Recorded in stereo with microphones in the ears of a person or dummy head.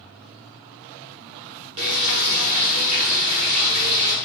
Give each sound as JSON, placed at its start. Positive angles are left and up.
{"t": 1.8, "sound": "frying", "side_deg": -30, "distance_m": 1.0}